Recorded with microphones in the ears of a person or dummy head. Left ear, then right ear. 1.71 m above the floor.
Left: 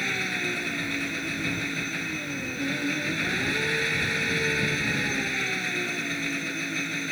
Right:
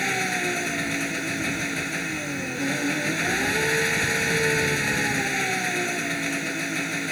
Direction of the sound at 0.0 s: 35° right (ahead or behind).